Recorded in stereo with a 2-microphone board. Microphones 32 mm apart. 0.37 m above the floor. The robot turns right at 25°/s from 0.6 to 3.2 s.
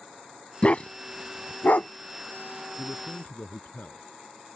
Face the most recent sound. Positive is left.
turn(degrees=65)  # may be behind; listen again after turning